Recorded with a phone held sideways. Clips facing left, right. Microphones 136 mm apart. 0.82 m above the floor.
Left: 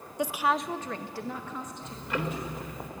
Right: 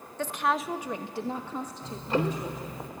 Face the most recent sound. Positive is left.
turn(degrees=-30)  # may be behind; listen again after turning